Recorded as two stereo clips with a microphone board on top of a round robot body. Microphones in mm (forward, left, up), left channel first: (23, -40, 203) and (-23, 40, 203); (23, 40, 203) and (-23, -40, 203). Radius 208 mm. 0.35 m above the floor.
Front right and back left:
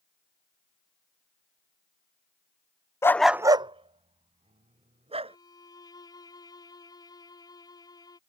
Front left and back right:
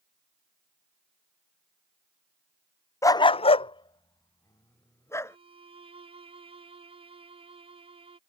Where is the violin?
105° right.